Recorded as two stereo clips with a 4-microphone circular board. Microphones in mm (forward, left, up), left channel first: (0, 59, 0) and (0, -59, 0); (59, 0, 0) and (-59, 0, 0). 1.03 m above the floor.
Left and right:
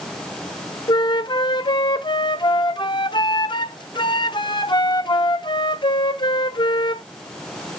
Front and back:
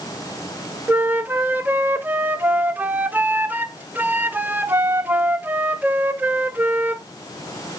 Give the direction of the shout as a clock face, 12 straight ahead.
No shout in this recording.